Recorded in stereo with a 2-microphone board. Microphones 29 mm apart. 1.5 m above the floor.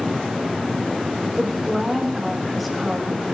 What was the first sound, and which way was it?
A woman speaking, 5° left (ahead or behind).